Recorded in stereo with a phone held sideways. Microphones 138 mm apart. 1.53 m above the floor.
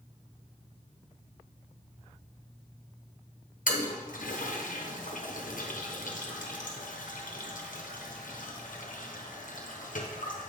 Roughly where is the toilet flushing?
Left.